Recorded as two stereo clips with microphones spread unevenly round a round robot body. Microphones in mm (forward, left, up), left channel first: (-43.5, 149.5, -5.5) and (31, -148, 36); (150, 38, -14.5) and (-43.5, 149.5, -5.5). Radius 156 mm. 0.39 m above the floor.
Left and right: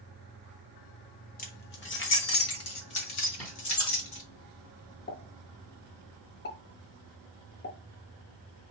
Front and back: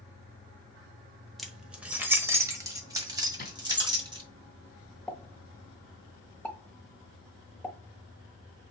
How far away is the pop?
About 1.4 m.